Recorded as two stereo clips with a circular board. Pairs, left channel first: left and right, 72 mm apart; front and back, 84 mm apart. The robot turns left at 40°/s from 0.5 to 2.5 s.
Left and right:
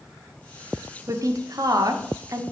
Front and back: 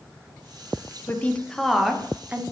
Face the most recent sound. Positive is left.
turn(degrees=-120)